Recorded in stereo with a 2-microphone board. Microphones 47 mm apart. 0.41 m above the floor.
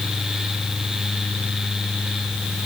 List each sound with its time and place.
Only background noise.